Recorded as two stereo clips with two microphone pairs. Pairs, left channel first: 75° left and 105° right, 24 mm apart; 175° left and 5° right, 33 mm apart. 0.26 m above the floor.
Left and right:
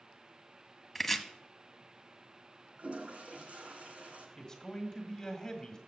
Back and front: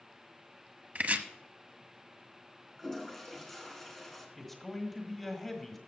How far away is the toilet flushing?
About 1.8 m.